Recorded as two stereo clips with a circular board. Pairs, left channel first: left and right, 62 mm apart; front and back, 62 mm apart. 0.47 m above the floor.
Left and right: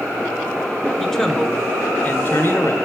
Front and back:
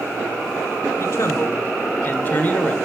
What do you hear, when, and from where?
1.0 s a man speaking: 5° left, 1.3 m; by 2.8 s 60° left, 1.5 m